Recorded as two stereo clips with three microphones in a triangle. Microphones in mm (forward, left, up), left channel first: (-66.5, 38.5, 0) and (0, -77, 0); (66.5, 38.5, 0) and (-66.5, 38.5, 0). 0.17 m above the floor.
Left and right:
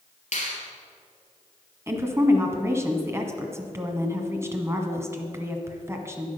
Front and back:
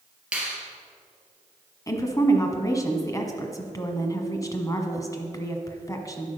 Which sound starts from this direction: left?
A finger snap, at 0.3 s.